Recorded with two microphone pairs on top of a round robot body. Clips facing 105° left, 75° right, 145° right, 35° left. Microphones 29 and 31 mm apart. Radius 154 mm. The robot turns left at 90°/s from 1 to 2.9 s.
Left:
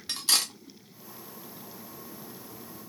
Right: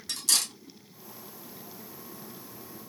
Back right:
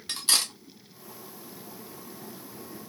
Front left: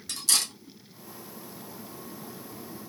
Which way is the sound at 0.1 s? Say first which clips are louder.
Left 2 dB, back right 2 dB; 160° left.